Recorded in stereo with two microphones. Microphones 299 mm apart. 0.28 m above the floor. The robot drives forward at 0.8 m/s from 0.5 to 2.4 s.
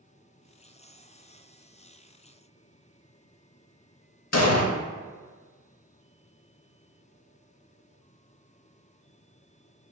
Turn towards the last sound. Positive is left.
turn(degrees=60)  # may be behind; listen again after turning